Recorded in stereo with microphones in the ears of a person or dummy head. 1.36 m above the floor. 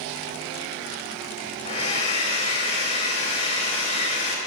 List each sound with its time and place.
1.6 s a hair dryer: 40° left (ahead or behind), 3 m